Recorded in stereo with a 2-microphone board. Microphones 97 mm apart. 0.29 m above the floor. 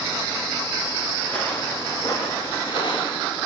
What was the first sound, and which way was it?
Footsteps, 10° left (ahead or behind).